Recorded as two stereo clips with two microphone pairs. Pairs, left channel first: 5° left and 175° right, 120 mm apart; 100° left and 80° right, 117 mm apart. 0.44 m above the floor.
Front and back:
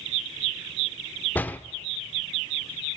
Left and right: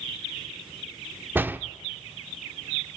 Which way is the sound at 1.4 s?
35° right.